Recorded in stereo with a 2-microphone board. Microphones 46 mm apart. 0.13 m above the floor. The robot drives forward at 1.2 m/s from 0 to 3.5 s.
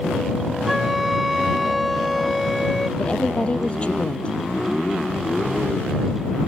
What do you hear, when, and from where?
0.7 s a flute: 5° right (ahead or behind); by 2.9 s centre (ahead or behind)
3.0 s a woman speaking: 25° left (ahead or behind); by 4.4 s 30° left (ahead or behind)